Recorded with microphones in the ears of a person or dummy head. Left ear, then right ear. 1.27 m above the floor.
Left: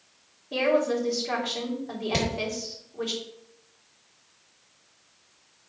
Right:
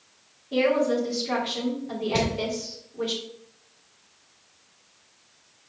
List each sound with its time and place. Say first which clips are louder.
0.5 s a woman speaking: right 1 dB; 30° left (ahead or behind), 3 m
2.1 s hammering: right 2 dB; 40° left (ahead or behind), 4 m